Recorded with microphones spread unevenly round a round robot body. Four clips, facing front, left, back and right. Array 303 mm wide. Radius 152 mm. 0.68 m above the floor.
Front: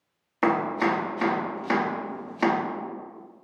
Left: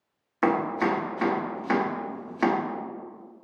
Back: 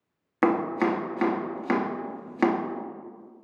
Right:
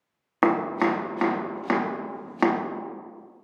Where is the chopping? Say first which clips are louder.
Right 2 dB, even; 150° right, 0.9 m.